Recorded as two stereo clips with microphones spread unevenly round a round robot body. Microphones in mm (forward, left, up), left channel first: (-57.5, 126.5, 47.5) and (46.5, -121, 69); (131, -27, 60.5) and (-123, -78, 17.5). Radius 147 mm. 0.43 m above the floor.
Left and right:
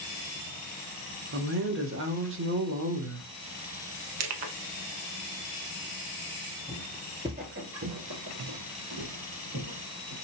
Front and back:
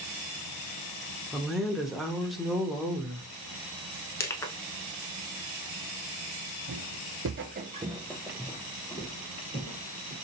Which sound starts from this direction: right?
A woman speaking, at 1.3 s.